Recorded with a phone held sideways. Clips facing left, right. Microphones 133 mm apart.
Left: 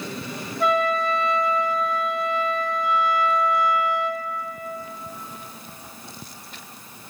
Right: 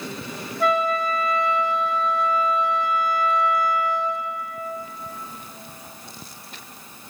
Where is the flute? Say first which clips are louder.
Even; centre (ahead or behind), 0.8 m.